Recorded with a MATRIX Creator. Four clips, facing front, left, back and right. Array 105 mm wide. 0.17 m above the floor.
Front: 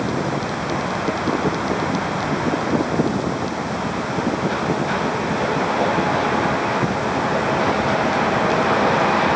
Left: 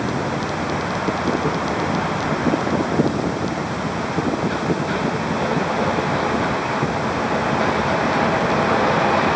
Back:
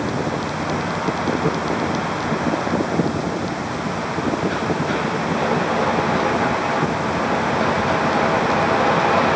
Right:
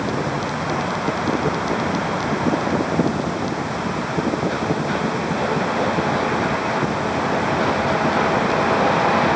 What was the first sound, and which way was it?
Only background noise.